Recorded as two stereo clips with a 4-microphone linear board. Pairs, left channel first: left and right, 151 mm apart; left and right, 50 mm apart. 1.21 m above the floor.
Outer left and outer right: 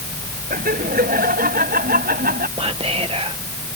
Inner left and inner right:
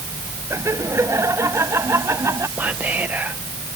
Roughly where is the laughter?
Right.